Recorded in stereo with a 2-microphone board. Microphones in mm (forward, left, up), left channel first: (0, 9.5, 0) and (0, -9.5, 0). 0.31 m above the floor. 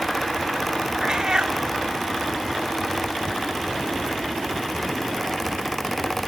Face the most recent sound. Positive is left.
turn(degrees=-45)  # may be behind; listen again after turning